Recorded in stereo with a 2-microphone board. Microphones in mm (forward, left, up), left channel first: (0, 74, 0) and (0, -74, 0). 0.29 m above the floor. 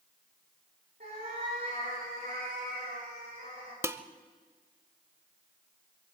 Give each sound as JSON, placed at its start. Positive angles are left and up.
{"t": 1.0, "sound": "a cat meowing", "side_deg": -70, "distance_m": 7.5}
{"t": 3.8, "sound": "dishes clattering", "side_deg": -15, "distance_m": 0.6}